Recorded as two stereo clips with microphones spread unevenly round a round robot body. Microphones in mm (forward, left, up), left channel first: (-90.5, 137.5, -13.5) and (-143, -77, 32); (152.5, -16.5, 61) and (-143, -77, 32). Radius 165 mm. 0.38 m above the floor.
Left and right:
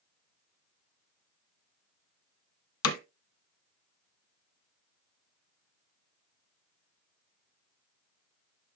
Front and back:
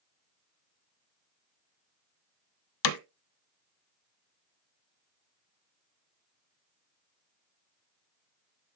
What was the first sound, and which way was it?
Hammering, 40° left.